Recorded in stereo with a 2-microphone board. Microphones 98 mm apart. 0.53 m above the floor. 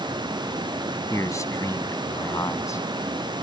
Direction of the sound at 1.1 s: 30° left (ahead or behind).